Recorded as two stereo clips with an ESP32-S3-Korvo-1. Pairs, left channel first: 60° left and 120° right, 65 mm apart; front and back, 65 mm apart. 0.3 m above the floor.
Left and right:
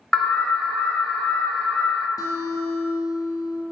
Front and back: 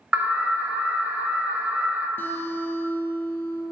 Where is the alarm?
135° left, 0.8 m.